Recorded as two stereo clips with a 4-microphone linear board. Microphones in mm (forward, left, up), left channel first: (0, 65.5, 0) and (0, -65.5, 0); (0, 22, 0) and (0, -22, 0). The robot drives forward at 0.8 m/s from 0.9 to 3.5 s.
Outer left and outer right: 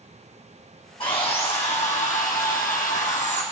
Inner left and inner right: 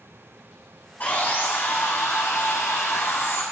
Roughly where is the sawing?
Left.